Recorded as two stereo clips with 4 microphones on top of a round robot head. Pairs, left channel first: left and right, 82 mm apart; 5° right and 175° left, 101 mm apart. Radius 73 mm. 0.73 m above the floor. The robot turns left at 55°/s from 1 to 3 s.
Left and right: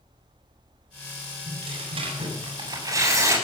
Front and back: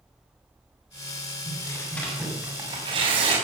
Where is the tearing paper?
55° right, 7 m; by 3.4 s 140° right, 7 m.